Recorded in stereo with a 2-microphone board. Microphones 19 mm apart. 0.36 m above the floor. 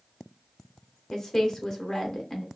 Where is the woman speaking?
25° left (ahead or behind), 0.9 m.